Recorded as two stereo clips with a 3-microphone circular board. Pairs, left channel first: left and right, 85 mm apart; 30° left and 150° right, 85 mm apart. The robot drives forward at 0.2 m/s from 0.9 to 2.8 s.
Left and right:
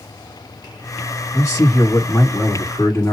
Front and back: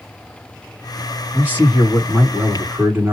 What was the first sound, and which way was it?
A man speaking, 140° left.